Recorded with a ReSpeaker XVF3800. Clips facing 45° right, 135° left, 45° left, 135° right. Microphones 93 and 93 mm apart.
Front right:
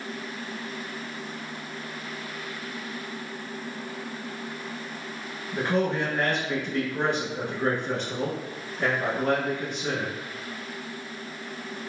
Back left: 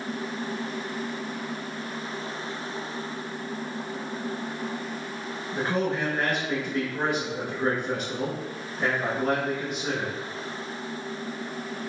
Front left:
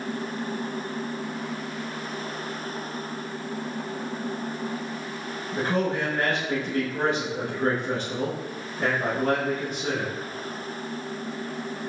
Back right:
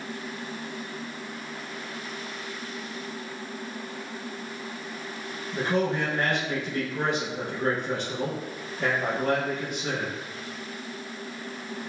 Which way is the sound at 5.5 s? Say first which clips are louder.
Front right 2 dB, even; 60° left.